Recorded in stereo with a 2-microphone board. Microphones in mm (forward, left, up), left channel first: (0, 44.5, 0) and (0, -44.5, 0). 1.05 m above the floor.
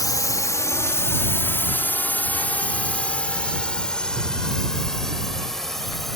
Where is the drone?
40° left (ahead or behind); by 6.2 s 5° left (ahead or behind).